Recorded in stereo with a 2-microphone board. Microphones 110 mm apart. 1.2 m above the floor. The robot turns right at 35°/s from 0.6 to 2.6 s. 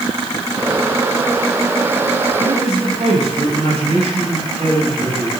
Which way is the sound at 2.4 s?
65° right (ahead or behind).